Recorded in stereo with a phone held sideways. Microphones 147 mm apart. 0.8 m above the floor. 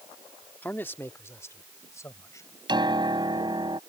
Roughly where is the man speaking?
Centre.